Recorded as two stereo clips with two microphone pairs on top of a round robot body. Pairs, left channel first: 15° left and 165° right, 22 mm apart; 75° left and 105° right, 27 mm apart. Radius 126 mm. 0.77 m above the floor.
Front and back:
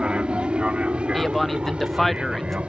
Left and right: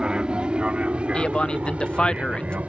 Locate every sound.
0.0 s an aircraft: 160° right; by 2.7 s 140° right
1.1 s a man speaking: 100° left